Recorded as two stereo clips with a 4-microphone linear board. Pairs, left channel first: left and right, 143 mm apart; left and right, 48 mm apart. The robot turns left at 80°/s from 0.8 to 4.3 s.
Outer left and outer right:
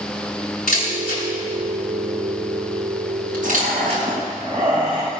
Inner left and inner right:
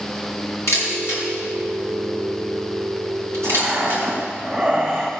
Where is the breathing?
70° right, 3.5 m; by 5.1 s 140° right, 3.5 m.